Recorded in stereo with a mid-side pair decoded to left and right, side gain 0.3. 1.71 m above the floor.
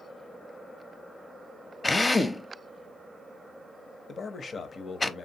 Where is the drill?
25° left, 0.6 m.